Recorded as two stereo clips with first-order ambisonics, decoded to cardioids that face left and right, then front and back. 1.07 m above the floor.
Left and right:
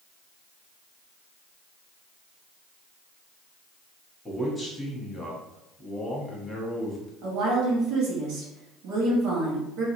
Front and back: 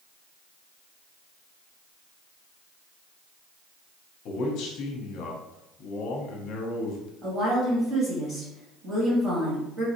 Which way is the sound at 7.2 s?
115° right.